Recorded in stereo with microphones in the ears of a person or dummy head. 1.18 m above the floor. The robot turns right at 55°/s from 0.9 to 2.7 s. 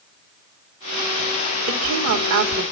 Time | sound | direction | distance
1.7 | a woman speaking | 110° right | 2 m